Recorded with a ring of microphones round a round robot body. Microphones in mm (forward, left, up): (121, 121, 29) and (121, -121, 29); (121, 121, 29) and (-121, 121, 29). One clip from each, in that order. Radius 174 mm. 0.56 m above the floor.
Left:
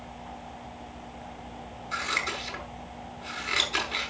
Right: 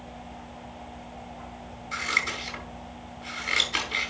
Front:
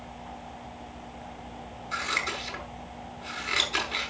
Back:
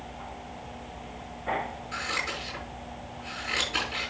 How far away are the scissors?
About 7.5 m.